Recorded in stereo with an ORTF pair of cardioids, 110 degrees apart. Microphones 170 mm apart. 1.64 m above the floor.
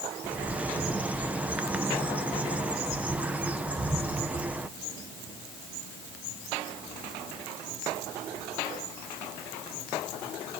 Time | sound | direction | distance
0.2 | a bird | 10° right | 1.3 m